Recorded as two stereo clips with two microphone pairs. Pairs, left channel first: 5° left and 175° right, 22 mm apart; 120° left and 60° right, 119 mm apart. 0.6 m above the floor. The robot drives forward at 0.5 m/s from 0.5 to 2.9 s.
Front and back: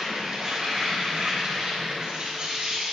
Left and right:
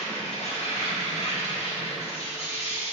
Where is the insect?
120° left, 3 m; by 3.0 s 140° left, 4 m.